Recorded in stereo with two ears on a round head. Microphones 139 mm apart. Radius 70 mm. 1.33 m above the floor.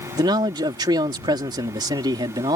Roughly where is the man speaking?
Right.